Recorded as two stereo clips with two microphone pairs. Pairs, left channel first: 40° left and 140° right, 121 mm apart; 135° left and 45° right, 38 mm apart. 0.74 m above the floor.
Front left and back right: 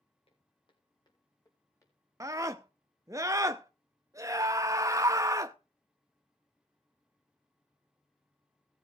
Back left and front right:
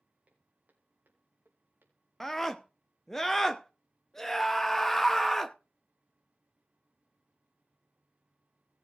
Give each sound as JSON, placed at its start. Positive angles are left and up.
{"t": 0.3, "sound": "footsteps", "azimuth_deg": 5, "distance_m": 3.0}
{"t": 2.2, "sound": "a scream", "azimuth_deg": -155, "distance_m": 0.5}